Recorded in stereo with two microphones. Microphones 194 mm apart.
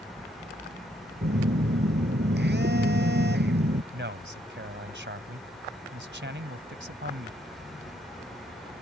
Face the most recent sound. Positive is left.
turn(degrees=-60)  # may be behind; listen again after turning